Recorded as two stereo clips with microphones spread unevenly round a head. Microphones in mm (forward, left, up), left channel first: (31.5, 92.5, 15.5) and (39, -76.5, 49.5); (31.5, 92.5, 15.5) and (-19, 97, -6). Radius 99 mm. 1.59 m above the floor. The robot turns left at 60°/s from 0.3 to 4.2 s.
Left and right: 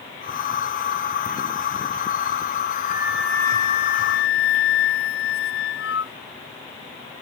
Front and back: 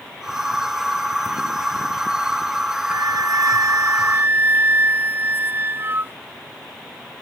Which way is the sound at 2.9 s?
155° right.